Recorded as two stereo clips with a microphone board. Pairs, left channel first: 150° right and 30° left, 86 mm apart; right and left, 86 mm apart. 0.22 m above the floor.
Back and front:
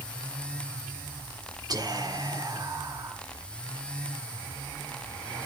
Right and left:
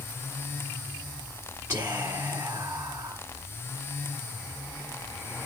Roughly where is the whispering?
Ahead left.